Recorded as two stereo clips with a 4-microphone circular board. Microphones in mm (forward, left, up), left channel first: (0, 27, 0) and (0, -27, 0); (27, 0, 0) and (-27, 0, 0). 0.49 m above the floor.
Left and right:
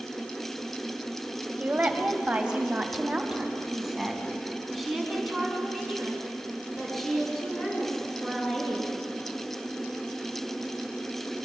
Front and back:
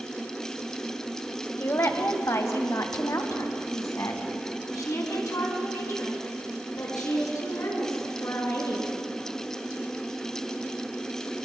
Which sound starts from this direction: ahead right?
A woman speaking, at 1.6 s.